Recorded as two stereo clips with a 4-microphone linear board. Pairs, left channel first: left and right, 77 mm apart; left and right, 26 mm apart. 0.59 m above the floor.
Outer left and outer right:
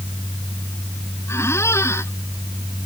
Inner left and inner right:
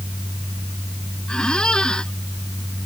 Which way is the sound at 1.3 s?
35° left (ahead or behind).